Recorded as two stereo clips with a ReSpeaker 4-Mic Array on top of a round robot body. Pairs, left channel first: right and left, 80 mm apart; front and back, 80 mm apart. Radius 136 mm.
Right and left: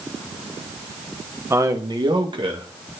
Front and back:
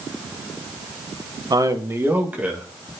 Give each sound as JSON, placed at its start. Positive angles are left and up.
{"t": 1.5, "sound": "a man speaking", "azimuth_deg": 145, "distance_m": 1.0}